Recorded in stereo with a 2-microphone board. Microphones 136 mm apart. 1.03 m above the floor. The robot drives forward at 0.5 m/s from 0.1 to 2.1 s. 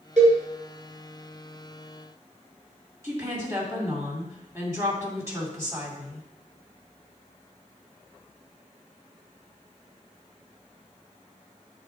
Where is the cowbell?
65° right (ahead or behind), 3.5 m.